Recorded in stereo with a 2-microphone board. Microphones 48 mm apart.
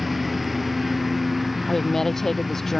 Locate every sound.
0.0 s a lawn mower: 5° right (ahead or behind)
1.7 s a woman speaking: 10° left (ahead or behind)